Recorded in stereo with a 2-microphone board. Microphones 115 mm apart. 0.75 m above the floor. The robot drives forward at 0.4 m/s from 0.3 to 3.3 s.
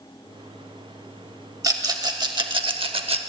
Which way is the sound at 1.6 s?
35° right (ahead or behind).